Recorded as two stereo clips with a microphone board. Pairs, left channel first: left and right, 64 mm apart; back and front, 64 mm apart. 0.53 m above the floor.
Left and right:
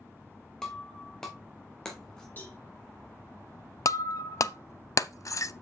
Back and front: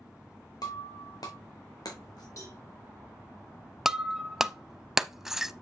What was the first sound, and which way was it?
Breaking glass, 170° left.